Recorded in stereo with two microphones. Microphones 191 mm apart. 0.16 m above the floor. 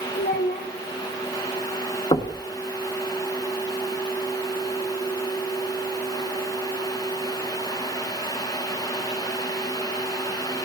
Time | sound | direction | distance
0.1 | a child speaking | 50° left (ahead or behind) | 3.5 m
2.1 | knocking | 25° left (ahead or behind) | 1.3 m